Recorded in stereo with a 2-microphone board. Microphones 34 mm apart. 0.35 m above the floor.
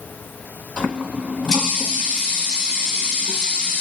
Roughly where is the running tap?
Left.